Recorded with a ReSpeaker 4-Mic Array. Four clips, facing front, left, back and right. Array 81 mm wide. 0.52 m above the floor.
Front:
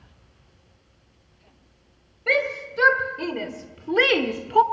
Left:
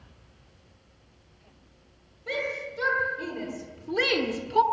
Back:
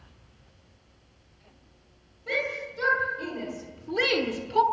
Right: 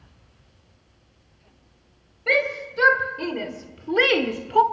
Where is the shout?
40° right, 3.5 m.